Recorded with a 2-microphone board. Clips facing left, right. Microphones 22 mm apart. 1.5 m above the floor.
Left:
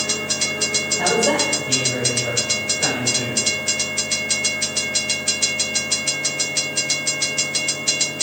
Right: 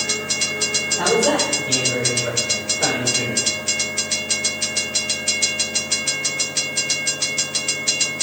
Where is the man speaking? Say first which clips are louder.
Right 1 dB; 65° right (ahead or behind), 5.5 m.